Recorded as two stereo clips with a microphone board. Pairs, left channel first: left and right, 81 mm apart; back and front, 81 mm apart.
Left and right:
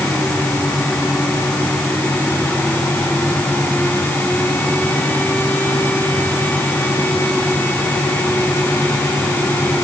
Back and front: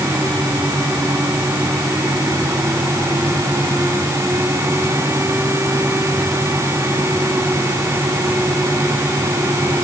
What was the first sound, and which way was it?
Only background noise.